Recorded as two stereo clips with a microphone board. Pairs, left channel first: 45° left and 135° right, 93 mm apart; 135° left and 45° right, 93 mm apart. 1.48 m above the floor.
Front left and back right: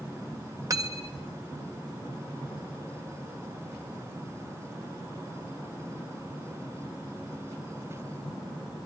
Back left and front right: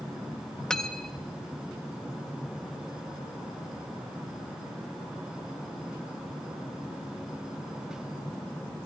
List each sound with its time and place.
0.7 s cutlery clinking: 145° right, 0.7 m